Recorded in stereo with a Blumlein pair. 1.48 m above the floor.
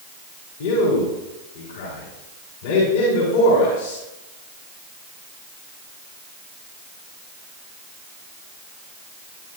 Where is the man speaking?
55° left, 4 m.